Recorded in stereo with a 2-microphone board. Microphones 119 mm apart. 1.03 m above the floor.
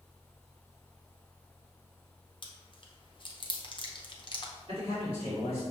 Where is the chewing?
40° left (ahead or behind), 0.7 m.